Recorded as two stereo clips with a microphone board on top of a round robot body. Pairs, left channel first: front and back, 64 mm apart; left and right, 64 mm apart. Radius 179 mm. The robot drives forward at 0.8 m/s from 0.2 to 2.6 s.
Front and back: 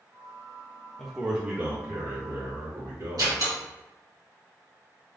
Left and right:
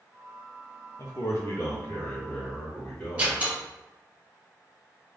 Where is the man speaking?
80° left, 0.8 m; by 3.4 s 160° left, 1.4 m.